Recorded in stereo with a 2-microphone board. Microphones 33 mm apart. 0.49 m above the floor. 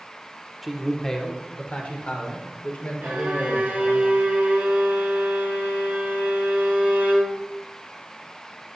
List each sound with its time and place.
0.6 s a man speaking: centre (ahead or behind), 1.0 m; by 4.0 s 65° left (ahead or behind), 2.5 m
3.0 s a violin: 60° right (ahead or behind), 4 m